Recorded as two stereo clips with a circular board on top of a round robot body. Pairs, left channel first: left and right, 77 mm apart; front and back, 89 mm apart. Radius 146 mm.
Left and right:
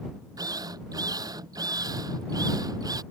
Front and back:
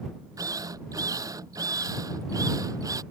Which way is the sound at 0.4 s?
130° right.